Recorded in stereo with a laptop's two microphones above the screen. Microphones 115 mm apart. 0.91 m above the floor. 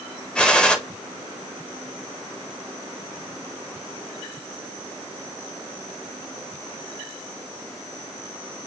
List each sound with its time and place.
0.3 s a gunshot: 10° left (ahead or behind), 0.5 m